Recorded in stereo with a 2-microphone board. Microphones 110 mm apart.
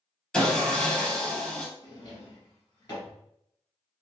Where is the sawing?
5° left (ahead or behind), 1.0 m.